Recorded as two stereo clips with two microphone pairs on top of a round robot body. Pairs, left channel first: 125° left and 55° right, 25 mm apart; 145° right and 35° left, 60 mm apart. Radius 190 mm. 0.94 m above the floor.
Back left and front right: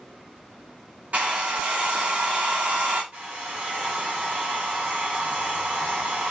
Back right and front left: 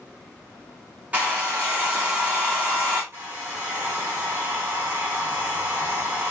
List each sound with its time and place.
1.1 s a hair dryer: 30° right, 2 m
3.1 s a hair dryer: 15° right, 1.2 m